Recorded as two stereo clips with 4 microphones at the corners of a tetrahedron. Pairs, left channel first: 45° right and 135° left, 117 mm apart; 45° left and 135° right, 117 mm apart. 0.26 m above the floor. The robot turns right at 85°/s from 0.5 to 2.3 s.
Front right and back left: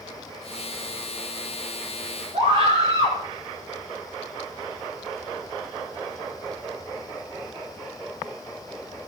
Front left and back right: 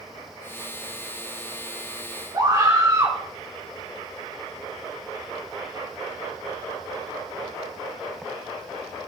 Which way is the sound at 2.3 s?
165° left.